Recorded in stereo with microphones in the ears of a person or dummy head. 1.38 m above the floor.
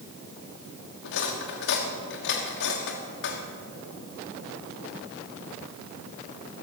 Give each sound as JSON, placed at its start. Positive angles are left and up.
{"t": 1.0, "sound": "cutlery clinking", "side_deg": 60, "distance_m": 1.4}